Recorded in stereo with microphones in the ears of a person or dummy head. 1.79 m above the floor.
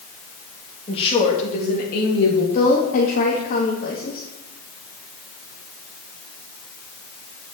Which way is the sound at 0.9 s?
30° left (ahead or behind).